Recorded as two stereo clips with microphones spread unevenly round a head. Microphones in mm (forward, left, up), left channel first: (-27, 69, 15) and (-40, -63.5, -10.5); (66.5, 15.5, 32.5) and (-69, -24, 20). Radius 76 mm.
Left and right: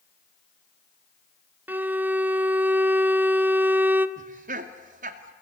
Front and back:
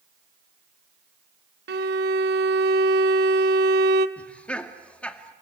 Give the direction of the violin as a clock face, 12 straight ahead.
6 o'clock.